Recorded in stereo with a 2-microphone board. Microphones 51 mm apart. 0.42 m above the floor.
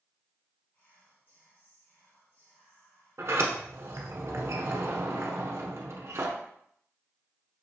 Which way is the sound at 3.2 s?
60° right (ahead or behind).